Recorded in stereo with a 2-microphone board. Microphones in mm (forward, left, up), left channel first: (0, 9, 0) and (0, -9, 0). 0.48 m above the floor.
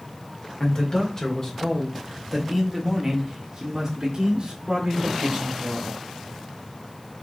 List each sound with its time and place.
0.6 s a man speaking: 45° left (ahead or behind), 1.9 m; by 5.9 s 55° right (ahead or behind), 2.5 m